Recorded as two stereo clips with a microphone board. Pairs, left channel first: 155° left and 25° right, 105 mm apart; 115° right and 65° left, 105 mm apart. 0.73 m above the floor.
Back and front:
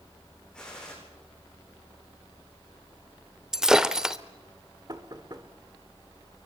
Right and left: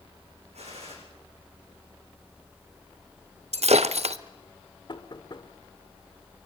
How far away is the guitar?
I don't hear a guitar.